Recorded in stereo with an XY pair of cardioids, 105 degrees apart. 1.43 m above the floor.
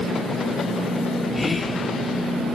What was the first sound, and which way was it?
Whispering, 25° left.